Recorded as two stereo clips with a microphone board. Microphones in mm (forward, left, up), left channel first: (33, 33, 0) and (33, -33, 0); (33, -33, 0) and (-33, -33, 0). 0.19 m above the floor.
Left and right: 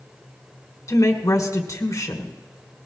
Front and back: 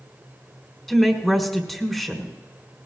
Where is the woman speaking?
85° left, 1.6 m.